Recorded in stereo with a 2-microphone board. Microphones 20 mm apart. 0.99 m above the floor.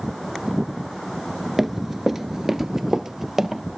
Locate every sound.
1.6 s running footsteps: 15° right (ahead or behind), 1.0 m; by 3.6 s 25° right (ahead or behind), 1.7 m